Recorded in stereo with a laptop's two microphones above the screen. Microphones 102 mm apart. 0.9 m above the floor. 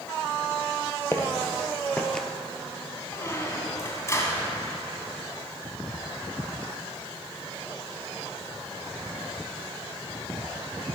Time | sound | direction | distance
1.1 | footsteps | 25° left (ahead or behind) | 1.4 m
3.1 | a squeak | 25° left (ahead or behind) | 2 m